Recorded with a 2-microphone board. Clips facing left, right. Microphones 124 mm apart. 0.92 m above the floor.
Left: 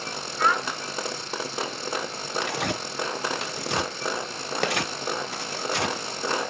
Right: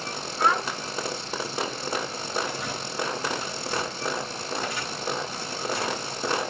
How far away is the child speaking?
About 1.4 m.